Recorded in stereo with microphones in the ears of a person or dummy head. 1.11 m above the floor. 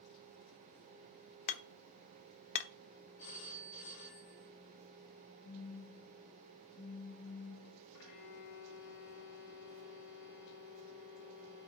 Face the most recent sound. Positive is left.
turn(degrees=55)  # may be behind; listen again after turning